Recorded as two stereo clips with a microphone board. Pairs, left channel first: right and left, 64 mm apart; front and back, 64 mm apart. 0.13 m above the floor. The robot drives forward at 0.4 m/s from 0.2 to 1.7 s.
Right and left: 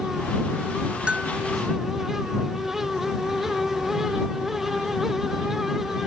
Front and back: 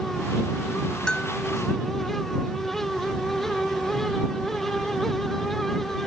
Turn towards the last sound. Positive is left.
turn(degrees=95)